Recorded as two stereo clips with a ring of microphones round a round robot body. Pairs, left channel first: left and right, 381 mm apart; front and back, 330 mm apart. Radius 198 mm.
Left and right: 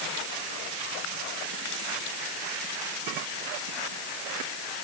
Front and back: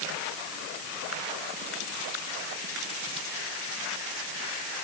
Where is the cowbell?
No cowbell in this recording.